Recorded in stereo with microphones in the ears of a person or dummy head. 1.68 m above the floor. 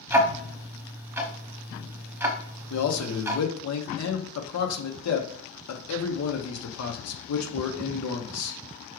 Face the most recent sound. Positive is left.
turn(degrees=85)